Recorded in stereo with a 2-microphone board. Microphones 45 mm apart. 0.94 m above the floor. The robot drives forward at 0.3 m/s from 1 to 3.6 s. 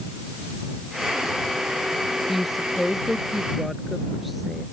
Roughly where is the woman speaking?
Centre.